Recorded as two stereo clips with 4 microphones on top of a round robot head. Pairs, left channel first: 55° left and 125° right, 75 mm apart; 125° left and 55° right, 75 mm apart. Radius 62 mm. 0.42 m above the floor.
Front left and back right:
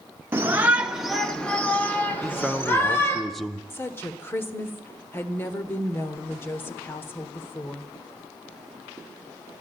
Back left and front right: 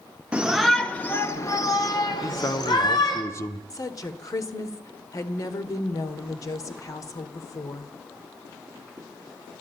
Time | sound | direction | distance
0.3 | a shout | 115° right | 0.9 m
2.2 | a man speaking | 140° left | 0.9 m
3.7 | a woman speaking | 105° left | 1.5 m